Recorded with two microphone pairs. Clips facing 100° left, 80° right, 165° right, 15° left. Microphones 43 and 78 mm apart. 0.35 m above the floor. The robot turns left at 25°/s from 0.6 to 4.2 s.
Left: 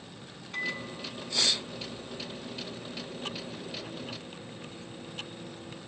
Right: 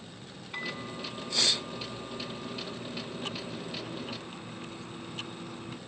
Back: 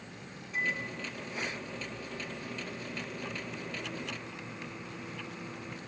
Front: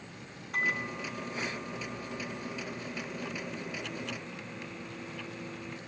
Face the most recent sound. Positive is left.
turn(degrees=-85)